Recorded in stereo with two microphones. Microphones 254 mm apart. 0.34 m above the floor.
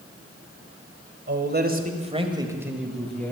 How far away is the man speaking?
About 1.6 m.